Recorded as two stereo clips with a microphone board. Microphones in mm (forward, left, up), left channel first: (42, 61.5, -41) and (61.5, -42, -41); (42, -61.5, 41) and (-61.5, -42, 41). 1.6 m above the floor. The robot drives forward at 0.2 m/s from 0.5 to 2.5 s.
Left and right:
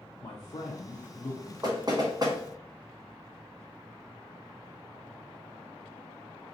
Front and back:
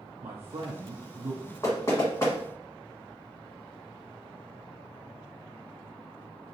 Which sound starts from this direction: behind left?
A man speaking, at 0.2 s.